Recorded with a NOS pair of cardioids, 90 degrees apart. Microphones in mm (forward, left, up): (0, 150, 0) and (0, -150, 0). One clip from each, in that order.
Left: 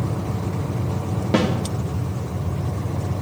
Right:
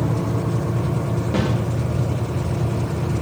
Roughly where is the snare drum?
Ahead left.